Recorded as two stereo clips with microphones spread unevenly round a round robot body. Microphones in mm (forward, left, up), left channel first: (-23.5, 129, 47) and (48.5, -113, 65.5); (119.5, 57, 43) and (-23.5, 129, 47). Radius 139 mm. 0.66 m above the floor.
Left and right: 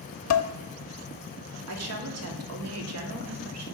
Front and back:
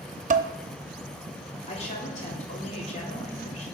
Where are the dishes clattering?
115° left, 0.7 m.